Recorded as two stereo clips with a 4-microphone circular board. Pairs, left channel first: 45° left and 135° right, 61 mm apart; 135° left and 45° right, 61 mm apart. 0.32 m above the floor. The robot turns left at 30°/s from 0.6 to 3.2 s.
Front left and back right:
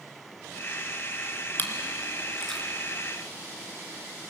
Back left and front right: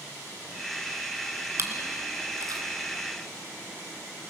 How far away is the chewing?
About 2.5 m.